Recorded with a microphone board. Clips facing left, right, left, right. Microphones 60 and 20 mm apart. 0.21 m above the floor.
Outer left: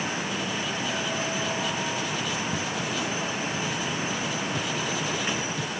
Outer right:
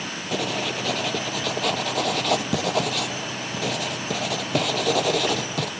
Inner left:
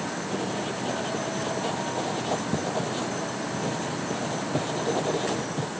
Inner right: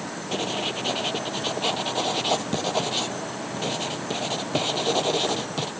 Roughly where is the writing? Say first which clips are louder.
Outer right 3 dB, inner right 6 dB; right.